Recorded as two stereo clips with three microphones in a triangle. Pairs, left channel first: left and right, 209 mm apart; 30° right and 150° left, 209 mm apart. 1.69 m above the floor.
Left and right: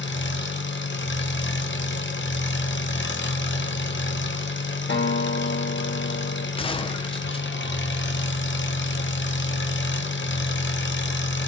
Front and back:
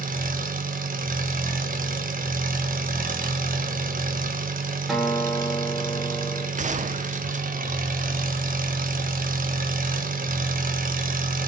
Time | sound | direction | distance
0.0 | an engine running | 105° left | 1.3 m
4.9 | a guitar | 60° left | 2 m
6.6 | a gunshot | 135° left | 0.7 m